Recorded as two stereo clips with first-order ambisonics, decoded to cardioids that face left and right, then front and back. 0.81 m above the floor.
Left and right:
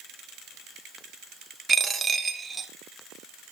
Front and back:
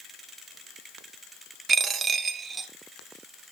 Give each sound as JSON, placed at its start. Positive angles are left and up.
{"t": 1.7, "sound": "a dropped coin", "azimuth_deg": -140, "distance_m": 0.8}